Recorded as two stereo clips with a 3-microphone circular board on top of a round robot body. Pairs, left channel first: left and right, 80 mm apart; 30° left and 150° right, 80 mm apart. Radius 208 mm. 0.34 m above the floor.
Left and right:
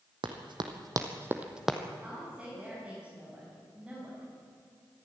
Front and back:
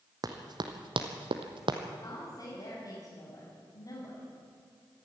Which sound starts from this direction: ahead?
A woman speaking, at 2.0 s.